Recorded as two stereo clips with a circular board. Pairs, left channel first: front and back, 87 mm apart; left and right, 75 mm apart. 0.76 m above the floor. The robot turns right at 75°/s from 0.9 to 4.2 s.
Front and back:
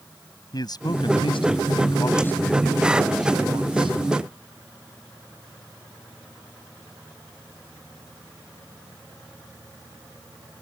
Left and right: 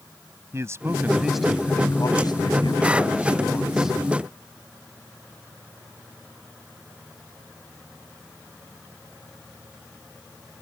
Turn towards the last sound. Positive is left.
turn(degrees=-150)